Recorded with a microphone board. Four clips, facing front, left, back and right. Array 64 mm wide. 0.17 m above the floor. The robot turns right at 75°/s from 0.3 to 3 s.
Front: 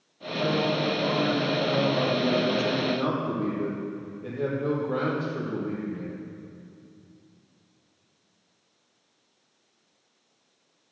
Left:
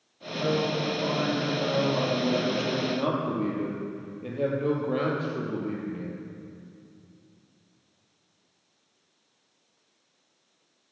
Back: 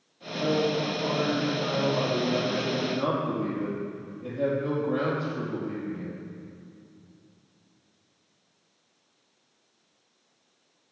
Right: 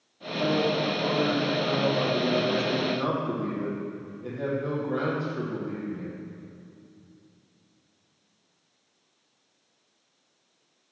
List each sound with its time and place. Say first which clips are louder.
0.4 s a man speaking: right 2 dB, even; 115° right, 5.5 m; by 6.2 s 85° left, 5.5 m